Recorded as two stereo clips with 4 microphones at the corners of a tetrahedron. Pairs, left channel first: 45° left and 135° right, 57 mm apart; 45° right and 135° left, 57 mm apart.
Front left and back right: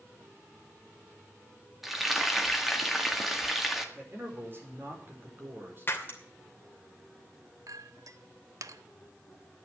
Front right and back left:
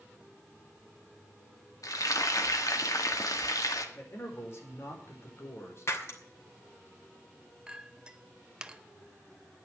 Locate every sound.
1.8 s frying: 50° right, 1.8 m
4.0 s a man speaking: 85° right, 5 m
5.9 s breaking glass: 5° right, 2.5 m
7.7 s a clink: 150° right, 0.7 m